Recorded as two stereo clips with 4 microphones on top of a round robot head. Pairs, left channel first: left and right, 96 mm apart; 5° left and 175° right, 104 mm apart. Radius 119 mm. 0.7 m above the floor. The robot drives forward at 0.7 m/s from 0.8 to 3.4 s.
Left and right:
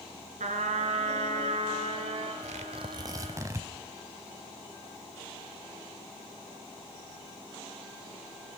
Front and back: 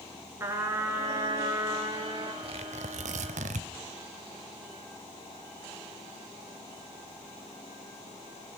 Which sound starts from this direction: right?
A trumpet, at 0.4 s.